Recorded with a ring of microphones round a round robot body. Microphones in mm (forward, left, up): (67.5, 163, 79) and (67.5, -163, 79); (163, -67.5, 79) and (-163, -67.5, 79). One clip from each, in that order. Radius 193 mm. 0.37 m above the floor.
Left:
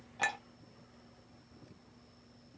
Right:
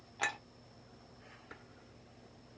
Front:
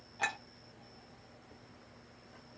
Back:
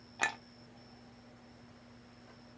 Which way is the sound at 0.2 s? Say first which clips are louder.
Left 2 dB, back 1 dB; 175° left.